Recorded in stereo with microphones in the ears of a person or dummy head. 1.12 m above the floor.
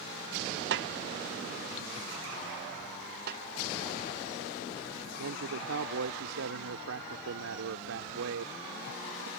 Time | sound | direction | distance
0.7 | a snare drum | 55° right (ahead or behind) | ?
3.3 | a snare drum | 55° right (ahead or behind) | ?
5.2 | a man speaking | 85° right | ?